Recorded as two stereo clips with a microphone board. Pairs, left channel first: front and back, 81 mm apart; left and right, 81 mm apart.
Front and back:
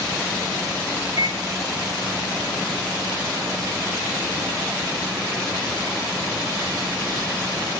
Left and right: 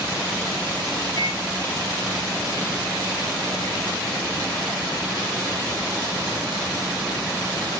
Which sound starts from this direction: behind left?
A microwave, at 1.2 s.